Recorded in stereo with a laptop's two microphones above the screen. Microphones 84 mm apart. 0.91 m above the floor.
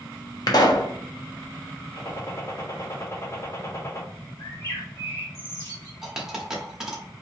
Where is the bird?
40° left (ahead or behind), 1.5 m.